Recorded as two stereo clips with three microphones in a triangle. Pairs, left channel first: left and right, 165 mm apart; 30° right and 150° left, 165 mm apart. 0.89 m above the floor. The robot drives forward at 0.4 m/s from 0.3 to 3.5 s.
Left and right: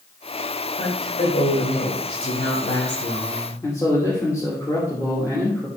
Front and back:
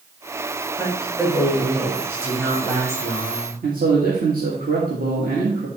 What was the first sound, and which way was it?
A woman speaking, 65° left.